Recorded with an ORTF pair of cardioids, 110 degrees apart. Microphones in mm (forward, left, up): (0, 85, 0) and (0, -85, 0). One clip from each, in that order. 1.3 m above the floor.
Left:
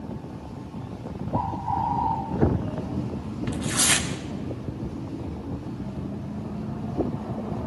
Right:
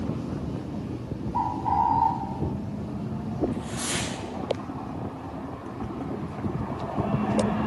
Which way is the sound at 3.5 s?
70° left.